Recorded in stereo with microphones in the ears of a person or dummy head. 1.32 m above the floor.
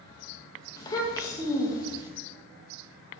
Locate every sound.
0.8 s a child speaking: 20° left (ahead or behind), 0.8 m